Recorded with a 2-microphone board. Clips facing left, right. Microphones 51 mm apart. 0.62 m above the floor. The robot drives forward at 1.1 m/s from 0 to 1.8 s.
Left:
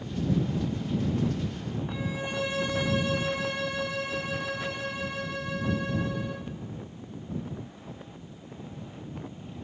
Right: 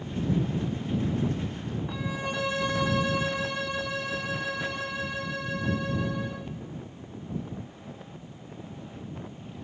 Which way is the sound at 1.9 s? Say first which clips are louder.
Right 1 dB; 80° right.